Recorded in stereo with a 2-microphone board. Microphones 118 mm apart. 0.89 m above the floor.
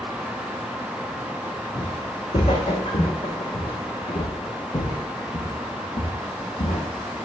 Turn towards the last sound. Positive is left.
turn(degrees=75)  # may be behind; listen again after turning